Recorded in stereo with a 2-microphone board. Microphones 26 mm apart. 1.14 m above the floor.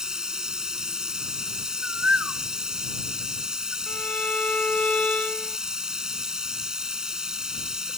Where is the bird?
80° right.